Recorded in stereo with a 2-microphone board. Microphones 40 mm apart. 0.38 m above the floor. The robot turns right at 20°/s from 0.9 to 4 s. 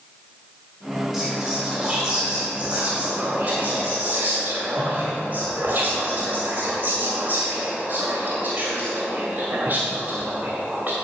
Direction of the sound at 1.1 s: Straight behind.